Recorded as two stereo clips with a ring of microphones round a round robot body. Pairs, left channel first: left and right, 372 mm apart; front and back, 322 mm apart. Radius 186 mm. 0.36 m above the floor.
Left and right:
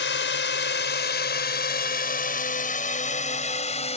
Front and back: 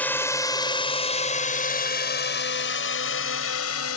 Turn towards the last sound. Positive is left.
turn(degrees=20)